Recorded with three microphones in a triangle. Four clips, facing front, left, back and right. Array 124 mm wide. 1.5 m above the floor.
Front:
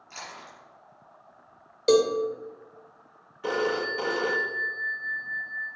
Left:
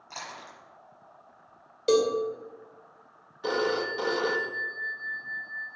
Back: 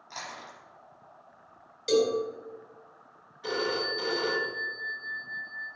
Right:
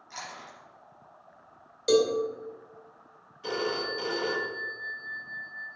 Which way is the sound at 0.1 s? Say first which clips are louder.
Left 1 dB, back 1 dB; 110° left.